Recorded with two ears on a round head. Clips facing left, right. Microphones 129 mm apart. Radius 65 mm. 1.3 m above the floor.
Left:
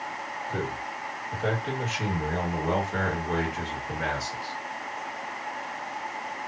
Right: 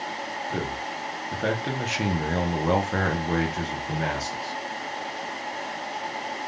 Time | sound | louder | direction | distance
0.5 | a man speaking | even | 55° right (ahead or behind) | 1.7 m